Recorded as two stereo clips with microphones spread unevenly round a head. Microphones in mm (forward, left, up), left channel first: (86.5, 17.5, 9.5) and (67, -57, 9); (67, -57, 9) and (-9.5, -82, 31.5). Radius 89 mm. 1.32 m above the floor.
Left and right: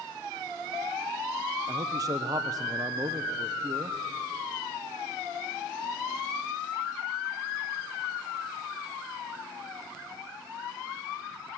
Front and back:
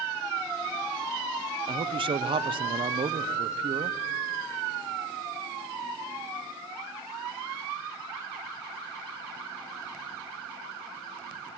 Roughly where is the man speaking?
Behind right.